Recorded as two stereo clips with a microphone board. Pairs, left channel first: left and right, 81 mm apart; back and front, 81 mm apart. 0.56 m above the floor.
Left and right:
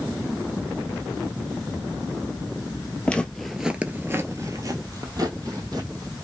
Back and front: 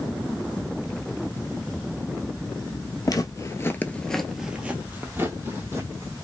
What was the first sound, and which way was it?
Footsteps, 160° left.